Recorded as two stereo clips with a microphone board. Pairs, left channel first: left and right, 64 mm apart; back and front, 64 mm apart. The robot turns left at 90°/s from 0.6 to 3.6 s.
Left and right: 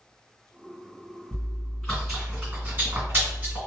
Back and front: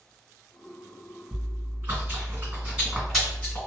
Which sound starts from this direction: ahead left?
Chewing, at 1.3 s.